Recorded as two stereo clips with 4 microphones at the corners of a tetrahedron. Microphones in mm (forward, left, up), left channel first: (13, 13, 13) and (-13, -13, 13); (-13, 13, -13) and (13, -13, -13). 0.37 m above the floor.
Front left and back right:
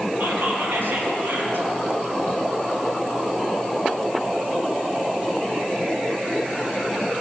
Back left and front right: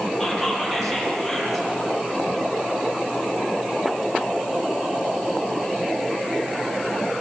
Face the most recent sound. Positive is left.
turn(degrees=-140)